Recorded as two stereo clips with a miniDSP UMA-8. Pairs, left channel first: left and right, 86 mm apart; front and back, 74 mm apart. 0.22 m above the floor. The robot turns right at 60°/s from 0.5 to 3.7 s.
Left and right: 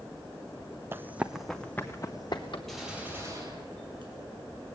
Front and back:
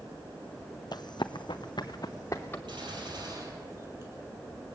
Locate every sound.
0.9 s running footsteps: 25° right, 0.6 m; by 2.6 s 65° left, 2 m
2.7 s a gunshot: 175° left, 4 m; by 4.1 s 120° right, 4 m